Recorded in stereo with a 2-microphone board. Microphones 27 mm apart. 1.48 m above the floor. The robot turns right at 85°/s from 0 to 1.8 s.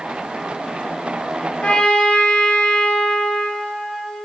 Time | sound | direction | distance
1.6 | a trumpet | 40° left (ahead or behind) | 3.5 m